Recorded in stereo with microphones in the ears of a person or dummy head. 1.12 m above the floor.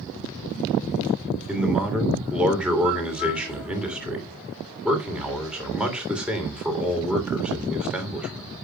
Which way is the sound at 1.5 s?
5° right (ahead or behind).